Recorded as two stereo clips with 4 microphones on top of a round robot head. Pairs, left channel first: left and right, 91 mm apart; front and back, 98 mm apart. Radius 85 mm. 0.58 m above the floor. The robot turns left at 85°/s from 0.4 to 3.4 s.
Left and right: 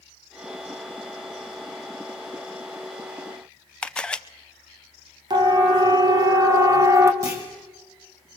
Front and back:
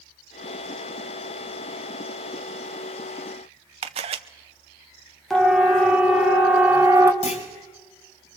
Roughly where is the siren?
Right.